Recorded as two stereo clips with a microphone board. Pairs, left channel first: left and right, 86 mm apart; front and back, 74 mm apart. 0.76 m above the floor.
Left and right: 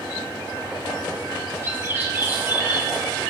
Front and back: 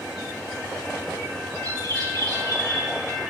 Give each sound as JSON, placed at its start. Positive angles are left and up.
{"t": 1.6, "sound": "a bird", "azimuth_deg": -150, "distance_m": 5.5}